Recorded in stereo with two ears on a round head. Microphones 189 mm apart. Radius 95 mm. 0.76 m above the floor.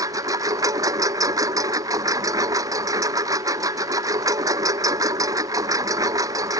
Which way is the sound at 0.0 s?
15° right (ahead or behind).